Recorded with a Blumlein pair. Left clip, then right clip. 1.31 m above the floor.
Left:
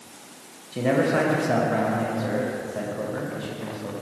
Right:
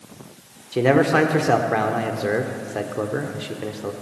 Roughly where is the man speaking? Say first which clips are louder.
Right 5 dB; ahead right.